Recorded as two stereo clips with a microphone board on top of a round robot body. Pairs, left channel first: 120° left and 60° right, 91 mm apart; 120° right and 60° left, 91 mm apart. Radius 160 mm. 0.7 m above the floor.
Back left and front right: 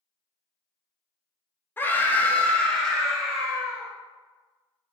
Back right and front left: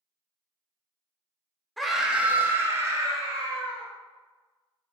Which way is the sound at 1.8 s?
155° left.